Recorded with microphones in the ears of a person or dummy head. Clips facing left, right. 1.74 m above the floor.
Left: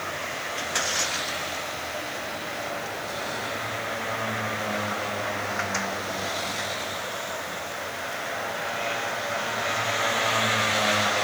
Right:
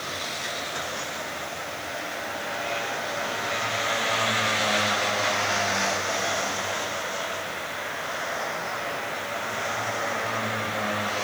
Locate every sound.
Only background noise.